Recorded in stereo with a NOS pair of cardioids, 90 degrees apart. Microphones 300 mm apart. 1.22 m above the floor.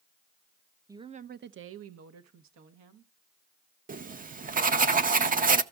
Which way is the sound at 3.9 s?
30° right.